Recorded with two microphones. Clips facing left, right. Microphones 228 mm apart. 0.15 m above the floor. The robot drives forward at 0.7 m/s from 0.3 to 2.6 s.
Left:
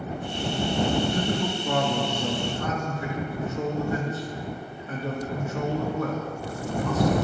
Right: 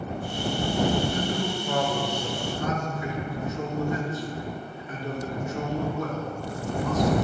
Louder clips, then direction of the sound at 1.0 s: Left 1 dB; 75° left (ahead or behind).